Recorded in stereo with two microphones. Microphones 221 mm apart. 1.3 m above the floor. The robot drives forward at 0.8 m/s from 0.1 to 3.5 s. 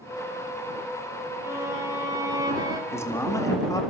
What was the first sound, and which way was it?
A violin, 15° right (ahead or behind).